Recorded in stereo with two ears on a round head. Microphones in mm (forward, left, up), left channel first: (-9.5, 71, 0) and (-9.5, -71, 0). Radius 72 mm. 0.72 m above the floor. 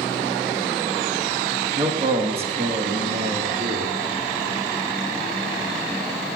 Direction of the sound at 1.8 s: 25° right (ahead or behind).